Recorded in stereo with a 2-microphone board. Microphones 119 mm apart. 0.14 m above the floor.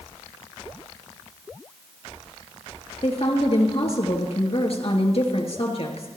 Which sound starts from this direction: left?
A woman speaking, at 3.0 s.